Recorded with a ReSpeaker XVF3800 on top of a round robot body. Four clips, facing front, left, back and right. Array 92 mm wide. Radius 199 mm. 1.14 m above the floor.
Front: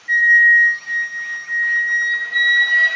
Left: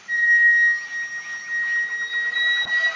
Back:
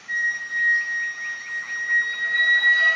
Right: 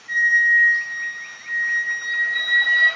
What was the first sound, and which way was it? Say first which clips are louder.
A flute: even, front 14 dB; 5° right.